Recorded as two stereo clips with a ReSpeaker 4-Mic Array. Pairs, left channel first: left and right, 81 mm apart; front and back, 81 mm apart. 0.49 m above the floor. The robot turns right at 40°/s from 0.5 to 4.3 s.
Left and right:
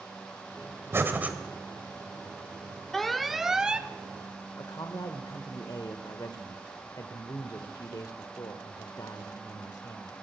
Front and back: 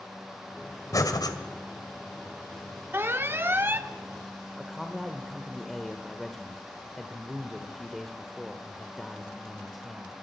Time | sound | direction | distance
0.9 | breathing | 35° right | 2.0 m
2.9 | an alarm | 170° left | 1.0 m
4.6 | a man speaking | 90° left | 1.3 m